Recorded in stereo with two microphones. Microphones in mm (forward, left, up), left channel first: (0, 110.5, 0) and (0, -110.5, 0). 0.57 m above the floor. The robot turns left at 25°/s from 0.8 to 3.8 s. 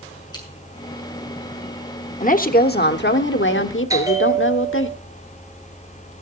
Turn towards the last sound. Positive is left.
turn(degrees=-15)  # may be behind; listen again after turning